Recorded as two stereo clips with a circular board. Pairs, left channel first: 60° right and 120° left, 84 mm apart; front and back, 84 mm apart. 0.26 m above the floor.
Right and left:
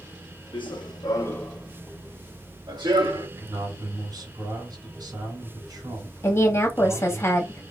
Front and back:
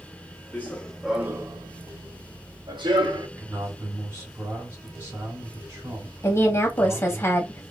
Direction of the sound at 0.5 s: 70° right.